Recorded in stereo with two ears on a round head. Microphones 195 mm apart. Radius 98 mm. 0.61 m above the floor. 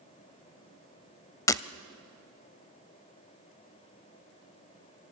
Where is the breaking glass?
15° left (ahead or behind), 0.6 m.